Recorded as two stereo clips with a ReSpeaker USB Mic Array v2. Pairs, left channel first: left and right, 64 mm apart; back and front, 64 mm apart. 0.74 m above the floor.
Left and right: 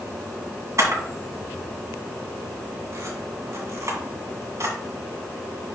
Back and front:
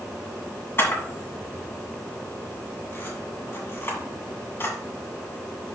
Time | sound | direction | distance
0.8 | a camera shutter | 125° right | 2 m